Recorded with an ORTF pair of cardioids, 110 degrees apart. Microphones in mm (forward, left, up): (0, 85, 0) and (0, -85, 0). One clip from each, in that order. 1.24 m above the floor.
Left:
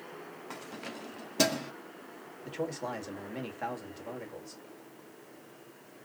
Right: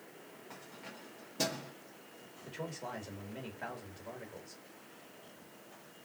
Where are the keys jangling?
55° left, 1.1 m.